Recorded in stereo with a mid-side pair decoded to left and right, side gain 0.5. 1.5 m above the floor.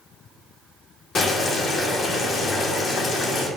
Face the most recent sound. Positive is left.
turn(degrees=55)